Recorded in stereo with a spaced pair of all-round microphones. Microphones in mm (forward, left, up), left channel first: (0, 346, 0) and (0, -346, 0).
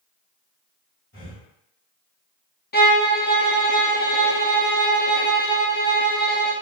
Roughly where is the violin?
Centre.